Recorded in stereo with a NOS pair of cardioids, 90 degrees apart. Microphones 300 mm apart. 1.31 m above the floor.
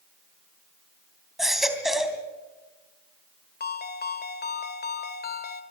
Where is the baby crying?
Straight ahead, 3 m.